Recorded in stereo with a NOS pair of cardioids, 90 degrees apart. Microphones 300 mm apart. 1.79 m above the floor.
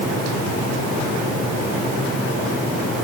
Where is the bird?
I don't hear a bird.